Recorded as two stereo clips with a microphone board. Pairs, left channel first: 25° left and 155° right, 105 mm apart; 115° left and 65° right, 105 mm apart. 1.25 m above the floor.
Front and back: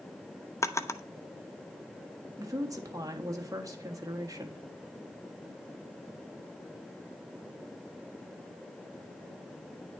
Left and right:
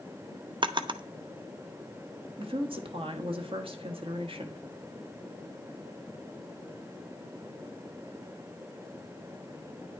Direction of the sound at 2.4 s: 100° right.